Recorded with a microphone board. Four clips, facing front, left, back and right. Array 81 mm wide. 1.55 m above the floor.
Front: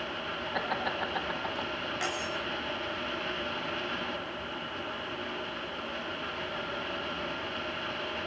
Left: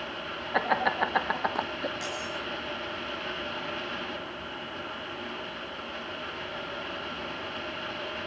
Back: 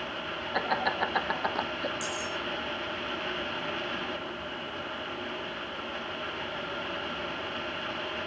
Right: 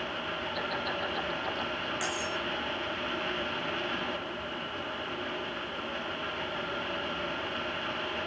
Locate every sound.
0.5 s laughter: 100° left, 1.6 m; by 1.9 s 125° left, 1.5 m
2.0 s cutlery clinking: 5° right, 4.5 m